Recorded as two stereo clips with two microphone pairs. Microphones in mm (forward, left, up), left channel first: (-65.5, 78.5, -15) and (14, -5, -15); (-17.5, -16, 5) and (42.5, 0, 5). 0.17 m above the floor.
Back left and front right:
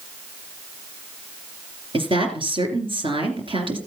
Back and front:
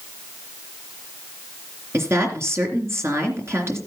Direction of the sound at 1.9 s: 20° right.